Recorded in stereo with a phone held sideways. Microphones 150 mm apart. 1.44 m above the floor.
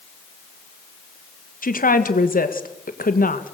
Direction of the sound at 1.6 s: 80° left.